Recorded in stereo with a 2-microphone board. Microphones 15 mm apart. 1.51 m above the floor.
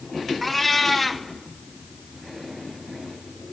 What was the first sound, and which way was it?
A cat meowing, 10° left (ahead or behind).